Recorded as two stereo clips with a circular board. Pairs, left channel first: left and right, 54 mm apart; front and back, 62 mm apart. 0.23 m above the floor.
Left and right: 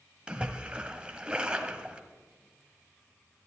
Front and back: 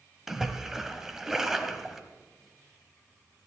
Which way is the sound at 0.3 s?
110° right.